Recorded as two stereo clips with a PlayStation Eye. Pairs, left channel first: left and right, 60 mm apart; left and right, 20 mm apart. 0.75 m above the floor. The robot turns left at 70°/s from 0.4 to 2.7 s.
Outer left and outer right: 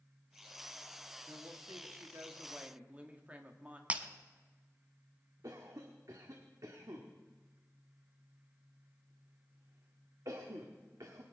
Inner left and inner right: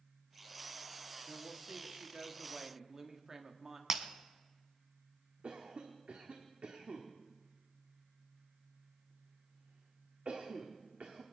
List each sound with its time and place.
1.3 s a woman speaking: 50° right, 1.5 m; by 3.8 s 155° right, 1.5 m
3.9 s breaking glass: 25° right (ahead or behind), 0.9 m
5.4 s a cough: 75° right (ahead or behind), 1.4 m